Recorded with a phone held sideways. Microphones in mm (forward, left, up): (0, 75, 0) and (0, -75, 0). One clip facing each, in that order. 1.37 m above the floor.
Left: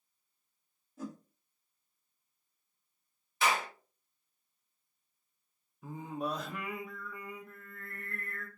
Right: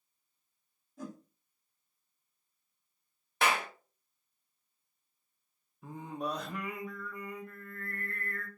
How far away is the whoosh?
About 2 m.